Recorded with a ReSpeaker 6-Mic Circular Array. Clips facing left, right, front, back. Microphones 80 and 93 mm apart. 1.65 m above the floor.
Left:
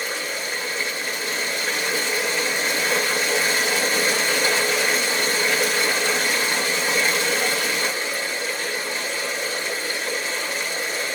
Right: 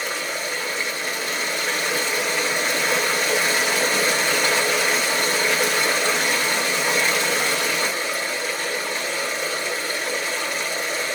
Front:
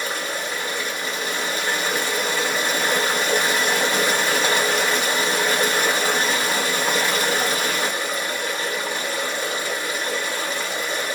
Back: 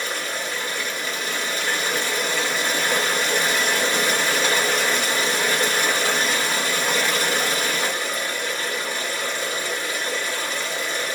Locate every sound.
0.0 s running water: 70° right, 1.5 m